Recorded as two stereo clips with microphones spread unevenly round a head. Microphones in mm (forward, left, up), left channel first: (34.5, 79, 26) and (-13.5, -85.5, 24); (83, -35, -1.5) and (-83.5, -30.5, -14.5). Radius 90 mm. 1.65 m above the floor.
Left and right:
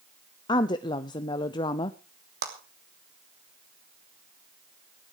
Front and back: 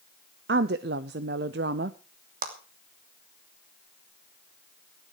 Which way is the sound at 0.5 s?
140° left.